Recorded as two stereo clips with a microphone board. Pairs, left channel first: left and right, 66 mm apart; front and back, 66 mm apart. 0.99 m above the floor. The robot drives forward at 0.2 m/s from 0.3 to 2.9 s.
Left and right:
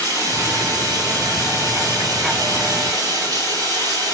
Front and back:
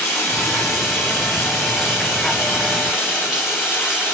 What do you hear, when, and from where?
0.0 s running water: 90° right, 3 m; by 4.2 s 100° right, 3 m